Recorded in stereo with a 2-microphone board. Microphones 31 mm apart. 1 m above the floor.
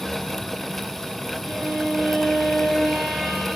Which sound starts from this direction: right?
A violin, at 1.4 s.